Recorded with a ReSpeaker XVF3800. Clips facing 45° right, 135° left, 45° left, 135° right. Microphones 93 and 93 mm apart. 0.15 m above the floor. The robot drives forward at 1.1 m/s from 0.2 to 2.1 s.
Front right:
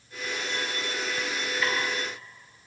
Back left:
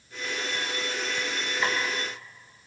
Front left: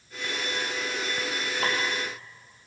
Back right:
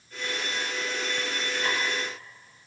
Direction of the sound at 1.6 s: 70° left.